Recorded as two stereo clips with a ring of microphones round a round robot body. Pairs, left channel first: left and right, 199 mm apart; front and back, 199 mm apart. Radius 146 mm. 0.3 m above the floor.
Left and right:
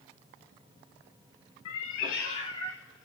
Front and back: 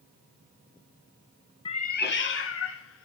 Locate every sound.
1.6 s a cat meowing: 70° left, 0.6 m; by 3.0 s straight ahead, 0.9 m